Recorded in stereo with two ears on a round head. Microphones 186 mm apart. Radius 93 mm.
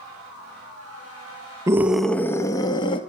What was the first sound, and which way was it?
A scream, 15° right (ahead or behind).